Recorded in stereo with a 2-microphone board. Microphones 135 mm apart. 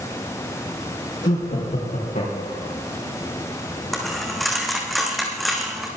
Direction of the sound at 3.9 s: Centre (ahead or behind).